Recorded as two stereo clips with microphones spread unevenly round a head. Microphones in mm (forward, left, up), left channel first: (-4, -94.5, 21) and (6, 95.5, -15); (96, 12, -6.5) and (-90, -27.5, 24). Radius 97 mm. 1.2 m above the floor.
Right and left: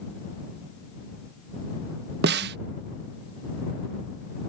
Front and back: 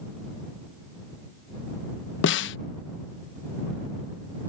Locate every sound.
2.2 s a snare drum: 45° left